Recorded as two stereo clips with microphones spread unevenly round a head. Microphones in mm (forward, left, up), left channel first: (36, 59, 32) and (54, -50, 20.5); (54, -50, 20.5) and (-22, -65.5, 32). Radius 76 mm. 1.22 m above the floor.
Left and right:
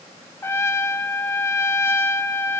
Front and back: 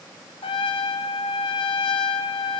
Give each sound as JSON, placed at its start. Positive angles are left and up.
{"t": 0.4, "sound": "a trumpet", "azimuth_deg": 30, "distance_m": 1.8}